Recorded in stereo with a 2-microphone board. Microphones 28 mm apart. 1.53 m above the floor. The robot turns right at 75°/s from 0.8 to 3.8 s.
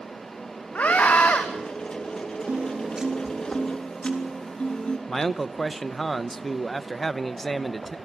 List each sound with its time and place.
0.8 s a scream: 60° left, 2.5 m; by 1.4 s 110° left, 2.5 m
2.5 s a piano: 65° right, 3.5 m; by 5.0 s 35° left, 3.5 m
5.1 s a man speaking: 5° left (ahead or behind), 0.9 m